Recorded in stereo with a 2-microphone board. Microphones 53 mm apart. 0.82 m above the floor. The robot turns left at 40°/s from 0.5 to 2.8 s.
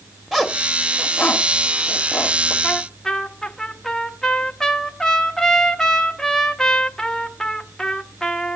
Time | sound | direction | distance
0.3 | a zipper | 5° right (ahead or behind) | 1.2 m
2.6 | a trumpet | 15° left (ahead or behind) | 0.9 m